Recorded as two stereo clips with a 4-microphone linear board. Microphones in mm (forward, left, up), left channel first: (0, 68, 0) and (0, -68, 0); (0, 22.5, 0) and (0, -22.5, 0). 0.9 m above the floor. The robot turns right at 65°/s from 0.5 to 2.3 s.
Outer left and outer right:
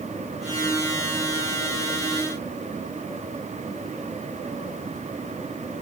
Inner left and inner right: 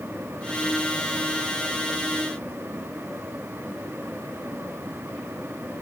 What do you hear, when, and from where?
Only background noise.